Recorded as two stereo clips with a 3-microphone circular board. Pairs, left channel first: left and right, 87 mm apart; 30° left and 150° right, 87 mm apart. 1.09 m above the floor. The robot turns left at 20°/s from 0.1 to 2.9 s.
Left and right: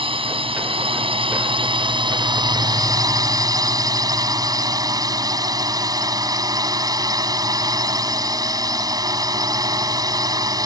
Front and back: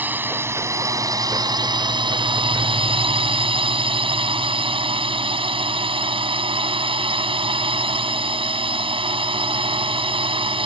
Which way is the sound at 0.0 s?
80° right.